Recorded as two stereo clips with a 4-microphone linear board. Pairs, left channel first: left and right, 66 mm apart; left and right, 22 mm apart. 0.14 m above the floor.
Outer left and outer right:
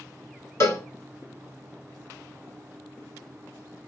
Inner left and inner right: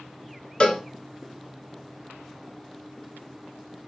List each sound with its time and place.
0.6 s a cowbell: 50° left (ahead or behind), 0.8 m